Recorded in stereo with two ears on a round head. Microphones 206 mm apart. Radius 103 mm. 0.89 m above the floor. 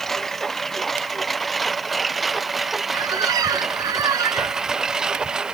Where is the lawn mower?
Centre (ahead or behind); by 5.5 s 5° right (ahead or behind).